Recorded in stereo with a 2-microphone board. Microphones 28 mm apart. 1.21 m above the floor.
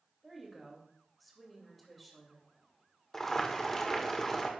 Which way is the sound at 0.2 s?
Centre (ahead or behind).